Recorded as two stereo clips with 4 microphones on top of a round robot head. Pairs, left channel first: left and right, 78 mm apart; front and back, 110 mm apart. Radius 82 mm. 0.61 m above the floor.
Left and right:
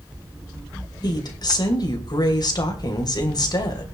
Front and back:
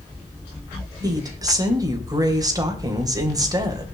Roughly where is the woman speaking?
Behind left.